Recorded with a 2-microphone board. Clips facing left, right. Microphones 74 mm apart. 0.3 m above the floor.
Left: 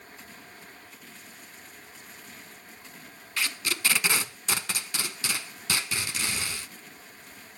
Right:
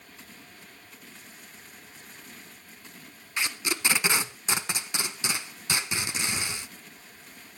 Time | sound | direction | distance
3.4 | tape being pulled | 20° right (ahead or behind) | 0.7 m